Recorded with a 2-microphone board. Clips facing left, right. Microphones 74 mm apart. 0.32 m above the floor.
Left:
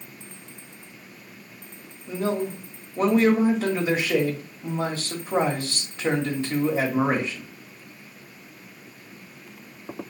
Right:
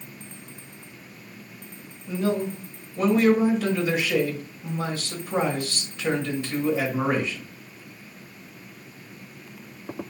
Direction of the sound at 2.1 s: 35° left (ahead or behind).